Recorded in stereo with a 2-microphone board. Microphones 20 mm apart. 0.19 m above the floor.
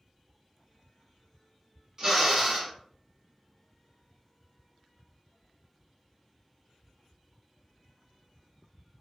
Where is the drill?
40° right (ahead or behind), 1.7 m.